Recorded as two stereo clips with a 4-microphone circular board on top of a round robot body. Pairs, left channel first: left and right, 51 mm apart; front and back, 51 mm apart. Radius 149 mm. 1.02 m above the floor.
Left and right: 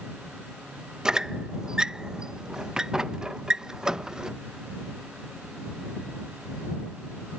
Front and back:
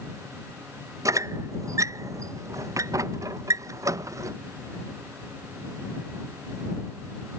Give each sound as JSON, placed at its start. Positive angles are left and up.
{"t": 1.1, "sound": "a squeak", "azimuth_deg": -170}